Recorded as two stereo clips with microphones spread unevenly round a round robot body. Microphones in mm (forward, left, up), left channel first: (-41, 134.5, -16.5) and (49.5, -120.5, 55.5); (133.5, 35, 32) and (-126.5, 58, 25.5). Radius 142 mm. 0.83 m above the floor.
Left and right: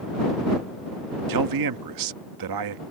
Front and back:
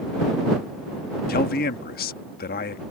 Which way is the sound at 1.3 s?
60° right.